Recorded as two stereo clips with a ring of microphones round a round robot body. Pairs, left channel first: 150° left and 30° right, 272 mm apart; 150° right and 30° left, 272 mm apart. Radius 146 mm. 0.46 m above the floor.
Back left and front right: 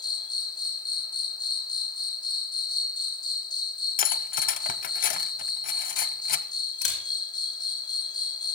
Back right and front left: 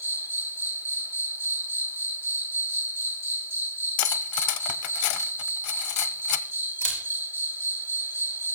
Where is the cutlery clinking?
155° right, 0.7 m.